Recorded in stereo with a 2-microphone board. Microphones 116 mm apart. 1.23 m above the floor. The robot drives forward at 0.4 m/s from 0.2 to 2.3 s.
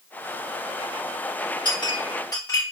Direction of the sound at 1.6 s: 40° left (ahead or behind).